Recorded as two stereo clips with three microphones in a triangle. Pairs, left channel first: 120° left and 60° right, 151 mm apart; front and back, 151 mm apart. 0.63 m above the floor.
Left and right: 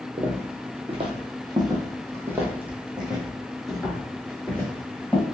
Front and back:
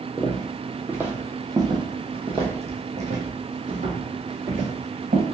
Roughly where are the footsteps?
Right.